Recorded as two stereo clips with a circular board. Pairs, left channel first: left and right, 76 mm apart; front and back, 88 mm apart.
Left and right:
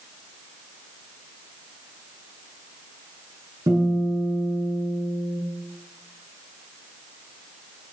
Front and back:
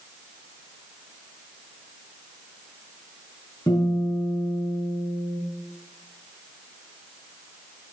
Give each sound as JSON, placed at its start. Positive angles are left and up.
{"t": 3.7, "sound": "a guitar", "azimuth_deg": -60, "distance_m": 7.5}